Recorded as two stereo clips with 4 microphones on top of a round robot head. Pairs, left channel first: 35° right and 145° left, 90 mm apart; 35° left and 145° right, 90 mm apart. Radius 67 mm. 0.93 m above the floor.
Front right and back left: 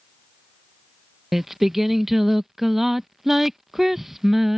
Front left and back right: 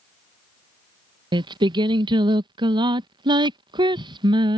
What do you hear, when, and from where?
1.3 s singing: 130° right